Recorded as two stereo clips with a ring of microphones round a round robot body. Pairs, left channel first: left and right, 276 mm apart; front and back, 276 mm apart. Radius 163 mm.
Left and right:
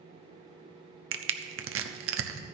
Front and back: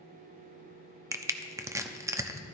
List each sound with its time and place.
1.1 s crushing: 105° right, 0.9 m